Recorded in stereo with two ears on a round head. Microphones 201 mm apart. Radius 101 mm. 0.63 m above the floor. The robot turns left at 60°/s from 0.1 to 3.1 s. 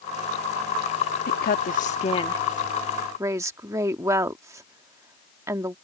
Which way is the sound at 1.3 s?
45° left (ahead or behind).